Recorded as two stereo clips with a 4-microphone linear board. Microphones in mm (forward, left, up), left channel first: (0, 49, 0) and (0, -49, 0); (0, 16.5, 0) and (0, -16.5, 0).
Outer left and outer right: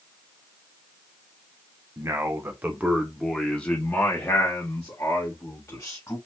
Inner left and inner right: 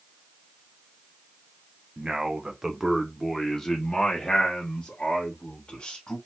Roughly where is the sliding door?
No sliding door in this recording.